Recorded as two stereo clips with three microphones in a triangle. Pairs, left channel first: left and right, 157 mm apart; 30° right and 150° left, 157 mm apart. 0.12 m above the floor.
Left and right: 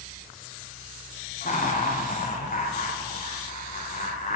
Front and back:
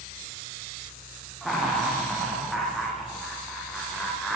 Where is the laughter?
60° left, 8.5 m.